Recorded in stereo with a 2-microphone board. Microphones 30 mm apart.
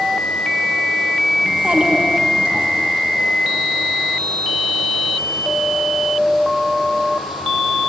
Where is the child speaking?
35° right (ahead or behind), 4.5 m.